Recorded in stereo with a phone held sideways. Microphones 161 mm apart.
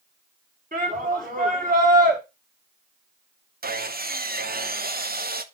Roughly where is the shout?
Right.